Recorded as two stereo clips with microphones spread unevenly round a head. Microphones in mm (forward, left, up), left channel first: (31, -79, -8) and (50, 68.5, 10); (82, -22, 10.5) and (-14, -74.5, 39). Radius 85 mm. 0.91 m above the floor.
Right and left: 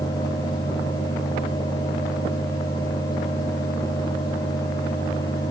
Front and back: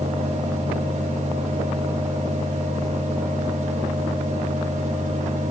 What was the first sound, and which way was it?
A fan, 155° right.